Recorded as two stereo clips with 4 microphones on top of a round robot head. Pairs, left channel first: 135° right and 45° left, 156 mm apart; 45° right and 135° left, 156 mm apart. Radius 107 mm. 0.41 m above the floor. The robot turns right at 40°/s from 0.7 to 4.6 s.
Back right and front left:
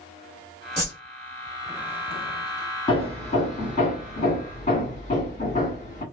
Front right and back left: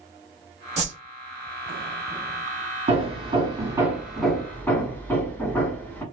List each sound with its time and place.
0.8 s a whoosh: 110° left, 1.9 m; by 1.0 s 120° left, 1.9 m
2.9 s hammering: 175° left, 1.5 m; by 6.0 s 115° right, 1.5 m